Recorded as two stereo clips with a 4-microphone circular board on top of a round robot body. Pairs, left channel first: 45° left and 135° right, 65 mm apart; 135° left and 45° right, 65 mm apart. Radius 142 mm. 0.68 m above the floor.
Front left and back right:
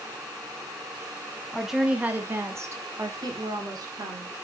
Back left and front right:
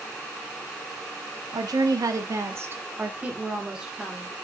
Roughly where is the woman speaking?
Ahead right.